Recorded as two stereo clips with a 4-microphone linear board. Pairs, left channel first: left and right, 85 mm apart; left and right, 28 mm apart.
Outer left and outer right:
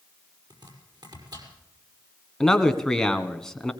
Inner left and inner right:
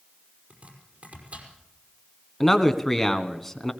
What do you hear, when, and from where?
0.5 s chopping: 60° right (ahead or behind), 5.5 m
2.4 s a man speaking: 5° left (ahead or behind), 1.7 m